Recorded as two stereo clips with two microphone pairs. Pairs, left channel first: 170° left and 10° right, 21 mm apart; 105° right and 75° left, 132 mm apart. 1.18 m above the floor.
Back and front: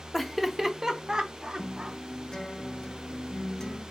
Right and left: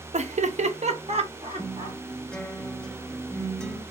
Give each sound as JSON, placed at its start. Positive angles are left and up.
{"t": 0.1, "sound": "laughter", "azimuth_deg": 90, "distance_m": 0.5}
{"t": 1.6, "sound": "a guitar", "azimuth_deg": 180, "distance_m": 0.6}